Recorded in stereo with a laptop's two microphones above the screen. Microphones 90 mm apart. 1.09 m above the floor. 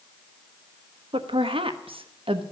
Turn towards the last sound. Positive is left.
turn(degrees=-85)